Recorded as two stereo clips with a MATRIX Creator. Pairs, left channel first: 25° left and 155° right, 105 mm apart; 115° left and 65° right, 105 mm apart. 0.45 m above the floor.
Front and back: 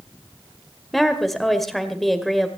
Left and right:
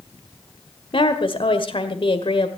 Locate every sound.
0.9 s a woman speaking: 110° left, 1.7 m